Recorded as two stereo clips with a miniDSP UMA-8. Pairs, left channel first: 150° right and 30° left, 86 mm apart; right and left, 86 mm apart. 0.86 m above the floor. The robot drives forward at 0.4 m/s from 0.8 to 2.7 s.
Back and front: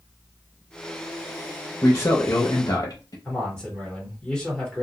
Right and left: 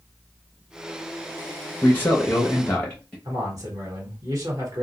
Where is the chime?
I don't hear a chime.